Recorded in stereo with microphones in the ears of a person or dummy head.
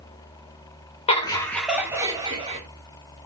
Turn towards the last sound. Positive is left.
turn(degrees=-35)  # may be behind; listen again after turning